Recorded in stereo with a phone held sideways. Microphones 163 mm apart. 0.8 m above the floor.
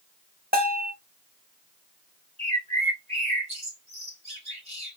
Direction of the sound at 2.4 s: 40° right (ahead or behind).